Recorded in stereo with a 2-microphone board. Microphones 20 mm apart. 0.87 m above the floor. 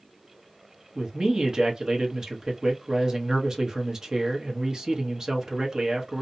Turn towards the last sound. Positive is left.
turn(degrees=-30)  # may be behind; listen again after turning